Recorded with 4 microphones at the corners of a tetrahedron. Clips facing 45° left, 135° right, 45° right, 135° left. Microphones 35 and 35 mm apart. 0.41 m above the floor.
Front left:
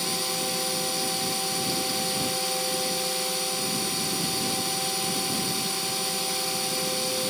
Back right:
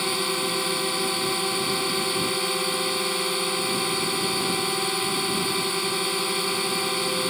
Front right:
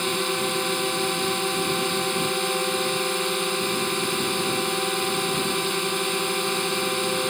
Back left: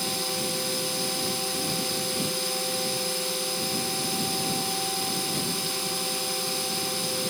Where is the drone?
90° right.